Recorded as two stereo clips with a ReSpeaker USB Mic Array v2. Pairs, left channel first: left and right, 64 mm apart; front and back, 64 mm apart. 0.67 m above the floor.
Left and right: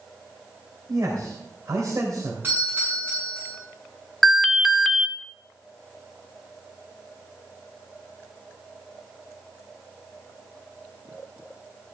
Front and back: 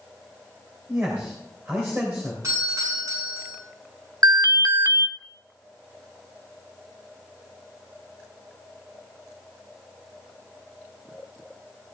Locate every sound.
0.9 s a man speaking: 125° right, 3 m
2.4 s a doorbell: 150° right, 8 m
4.2 s an alarm: straight behind, 1.1 m